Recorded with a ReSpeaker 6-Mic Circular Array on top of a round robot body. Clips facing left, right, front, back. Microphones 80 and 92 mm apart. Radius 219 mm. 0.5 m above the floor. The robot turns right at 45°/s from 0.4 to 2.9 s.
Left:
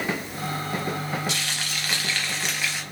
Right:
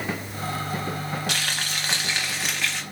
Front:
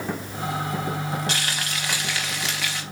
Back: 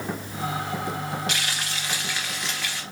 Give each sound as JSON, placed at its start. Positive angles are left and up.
{"t": 1.3, "sound": "frying", "azimuth_deg": -55, "distance_m": 0.7}